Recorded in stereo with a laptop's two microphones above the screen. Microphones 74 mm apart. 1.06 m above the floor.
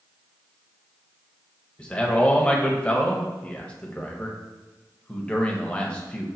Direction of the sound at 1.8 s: 15° left (ahead or behind).